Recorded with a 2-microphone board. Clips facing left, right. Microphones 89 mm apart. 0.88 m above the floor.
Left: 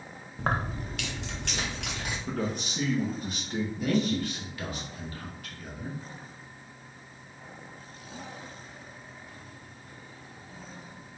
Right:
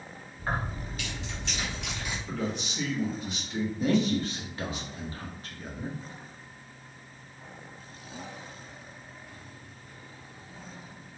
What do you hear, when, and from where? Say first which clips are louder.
0.4 s keys jangling: left 3 dB; 85° left, 0.5 m; by 2.2 s 60° left (ahead or behind), 1.8 m
2.3 s a man speaking: left 1 dB; 45° left (ahead or behind), 1.1 m
3.8 s a man speaking: right 2 dB; 30° right (ahead or behind), 1.1 m